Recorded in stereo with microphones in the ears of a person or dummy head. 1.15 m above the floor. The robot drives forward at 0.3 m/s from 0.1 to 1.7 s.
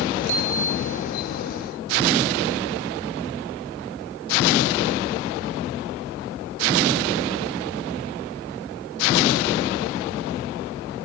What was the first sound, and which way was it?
A bicycle bell, 60° right (ahead or behind).